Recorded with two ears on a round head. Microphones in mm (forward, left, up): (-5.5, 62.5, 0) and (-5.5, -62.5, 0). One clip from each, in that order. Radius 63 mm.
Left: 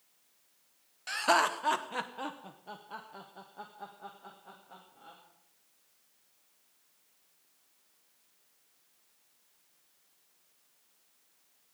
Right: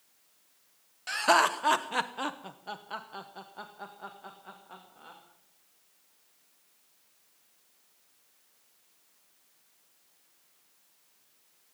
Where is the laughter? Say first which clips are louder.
Right 3 dB; 5° left (ahead or behind), 0.9 m; by 5.2 s 35° right (ahead or behind), 2.5 m.